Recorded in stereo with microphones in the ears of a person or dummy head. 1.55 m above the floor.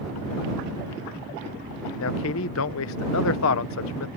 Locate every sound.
2.0 s a man speaking: 75° left (ahead or behind)